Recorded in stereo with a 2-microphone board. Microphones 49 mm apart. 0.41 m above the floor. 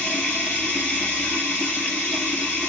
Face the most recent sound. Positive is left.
turn(degrees=15)  # may be behind; listen again after turning